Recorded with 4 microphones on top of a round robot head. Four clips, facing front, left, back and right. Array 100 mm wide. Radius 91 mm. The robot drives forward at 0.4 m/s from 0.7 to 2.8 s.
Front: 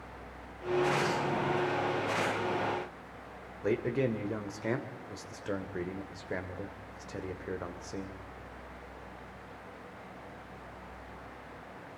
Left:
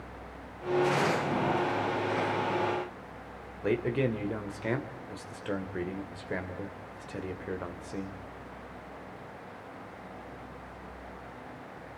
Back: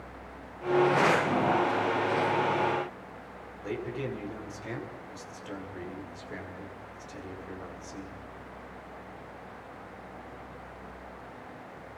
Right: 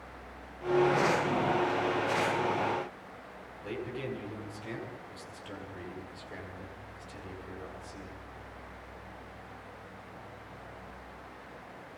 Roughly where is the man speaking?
Ahead left.